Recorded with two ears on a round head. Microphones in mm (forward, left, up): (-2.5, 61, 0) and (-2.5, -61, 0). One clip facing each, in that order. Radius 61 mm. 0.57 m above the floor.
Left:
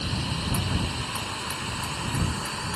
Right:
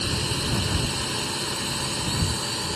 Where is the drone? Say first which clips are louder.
Right 2 dB; 55° right (ahead or behind); by 2.8 s 35° right (ahead or behind).